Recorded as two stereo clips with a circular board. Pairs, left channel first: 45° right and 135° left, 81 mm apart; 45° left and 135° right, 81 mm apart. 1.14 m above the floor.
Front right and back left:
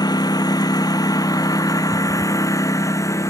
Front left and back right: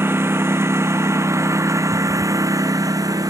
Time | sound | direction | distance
0.0 | a lawn mower | 75° right | ?